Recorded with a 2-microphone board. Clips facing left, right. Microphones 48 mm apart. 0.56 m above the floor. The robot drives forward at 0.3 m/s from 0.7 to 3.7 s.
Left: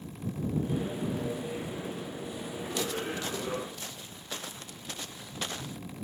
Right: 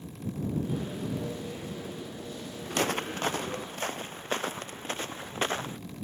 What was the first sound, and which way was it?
Footsteps, 50° right (ahead or behind).